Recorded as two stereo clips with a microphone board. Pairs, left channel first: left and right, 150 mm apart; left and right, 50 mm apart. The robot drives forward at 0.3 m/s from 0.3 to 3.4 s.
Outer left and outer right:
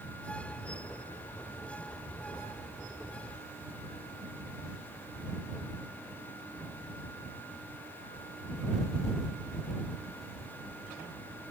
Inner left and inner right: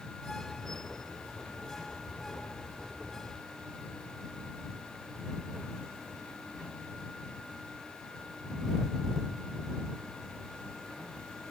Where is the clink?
No clink in this recording.